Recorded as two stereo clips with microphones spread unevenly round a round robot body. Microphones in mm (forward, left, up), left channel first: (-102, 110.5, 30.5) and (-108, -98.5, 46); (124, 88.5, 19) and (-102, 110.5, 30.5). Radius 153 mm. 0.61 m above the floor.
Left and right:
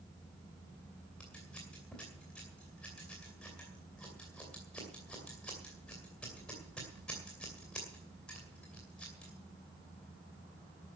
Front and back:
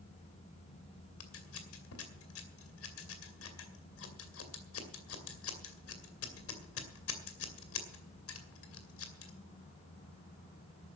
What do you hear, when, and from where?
1.2 s scissors: 5° left, 2.5 m